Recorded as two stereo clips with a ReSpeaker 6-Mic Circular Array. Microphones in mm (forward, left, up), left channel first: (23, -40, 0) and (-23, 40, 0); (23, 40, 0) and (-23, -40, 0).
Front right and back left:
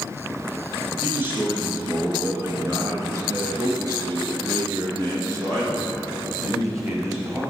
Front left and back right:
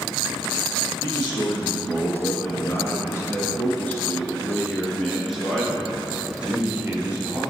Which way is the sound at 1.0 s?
55° left.